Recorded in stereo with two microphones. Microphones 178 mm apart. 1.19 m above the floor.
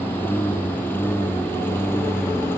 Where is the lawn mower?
10° left (ahead or behind).